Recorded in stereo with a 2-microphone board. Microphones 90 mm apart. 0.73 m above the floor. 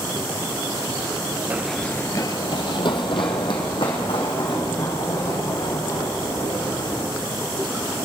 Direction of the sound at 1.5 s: 20° right (ahead or behind).